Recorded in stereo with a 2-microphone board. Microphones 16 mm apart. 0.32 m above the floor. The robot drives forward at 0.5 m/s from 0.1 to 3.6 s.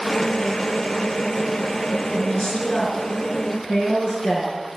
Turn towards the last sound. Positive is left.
turn(degrees=75)  # may be behind; listen again after turning